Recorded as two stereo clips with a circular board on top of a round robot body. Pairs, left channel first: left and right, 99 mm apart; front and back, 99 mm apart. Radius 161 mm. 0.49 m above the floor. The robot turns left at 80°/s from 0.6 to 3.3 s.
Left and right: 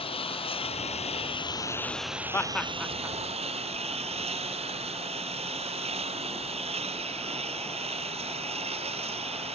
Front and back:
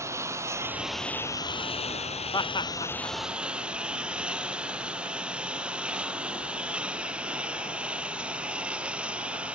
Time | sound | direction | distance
0.0 | a lawn mower | 115° left | ?
2.3 | laughter | 30° left | ?